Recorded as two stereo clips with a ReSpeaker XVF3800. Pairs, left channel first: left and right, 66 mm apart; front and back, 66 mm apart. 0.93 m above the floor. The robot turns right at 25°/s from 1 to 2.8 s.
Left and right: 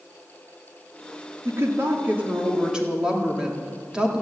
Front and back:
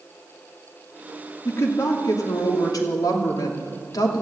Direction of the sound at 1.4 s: 45° right.